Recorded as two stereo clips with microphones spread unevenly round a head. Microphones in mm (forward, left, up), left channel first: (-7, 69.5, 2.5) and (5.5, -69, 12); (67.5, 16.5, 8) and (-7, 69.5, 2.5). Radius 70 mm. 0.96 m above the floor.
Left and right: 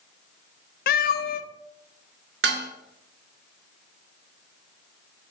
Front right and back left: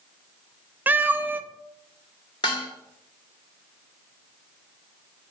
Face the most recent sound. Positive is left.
turn(degrees=-100)